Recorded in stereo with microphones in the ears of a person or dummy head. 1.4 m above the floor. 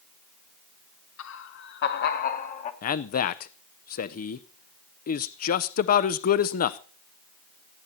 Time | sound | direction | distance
1.2 | laughter | 70° left (ahead or behind) | 1.1 m
2.8 | a man speaking | 45° left (ahead or behind) | 0.6 m